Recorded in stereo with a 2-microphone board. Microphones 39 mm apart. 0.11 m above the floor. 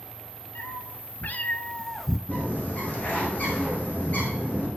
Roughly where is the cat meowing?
Left.